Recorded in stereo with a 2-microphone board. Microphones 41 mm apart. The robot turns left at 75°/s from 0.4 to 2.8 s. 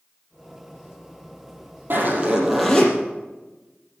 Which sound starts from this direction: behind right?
A zipper, at 1.9 s.